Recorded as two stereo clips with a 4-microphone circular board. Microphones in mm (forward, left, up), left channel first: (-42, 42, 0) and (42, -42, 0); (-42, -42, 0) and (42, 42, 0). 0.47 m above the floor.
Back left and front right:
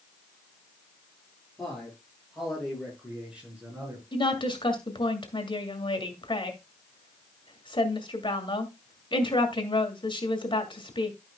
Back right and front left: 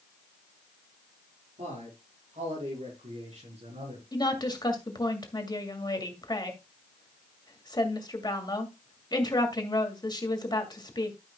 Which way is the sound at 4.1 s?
175° left.